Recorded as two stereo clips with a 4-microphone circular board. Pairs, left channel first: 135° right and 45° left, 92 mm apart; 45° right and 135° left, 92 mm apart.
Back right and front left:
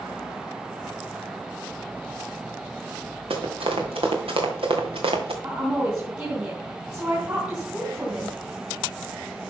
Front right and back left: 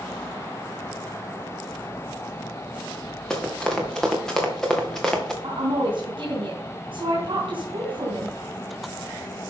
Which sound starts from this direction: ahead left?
Running footsteps, at 3.3 s.